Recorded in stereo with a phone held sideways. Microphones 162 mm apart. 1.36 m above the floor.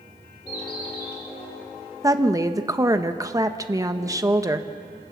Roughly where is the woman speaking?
Right.